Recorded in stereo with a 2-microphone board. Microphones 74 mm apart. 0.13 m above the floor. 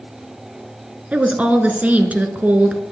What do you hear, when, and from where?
1.1 s a woman speaking: 20° right (ahead or behind), 1.4 m